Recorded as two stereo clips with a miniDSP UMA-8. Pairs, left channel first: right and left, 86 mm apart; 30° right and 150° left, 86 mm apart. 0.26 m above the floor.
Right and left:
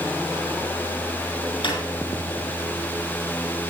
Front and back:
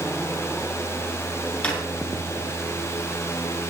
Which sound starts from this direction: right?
A drawer, at 1.6 s.